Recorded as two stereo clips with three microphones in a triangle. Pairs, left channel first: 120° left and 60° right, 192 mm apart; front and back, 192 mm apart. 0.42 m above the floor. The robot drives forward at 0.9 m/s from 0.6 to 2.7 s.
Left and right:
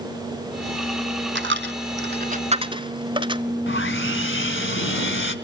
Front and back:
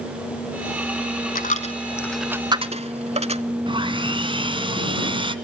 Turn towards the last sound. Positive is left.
turn(degrees=115)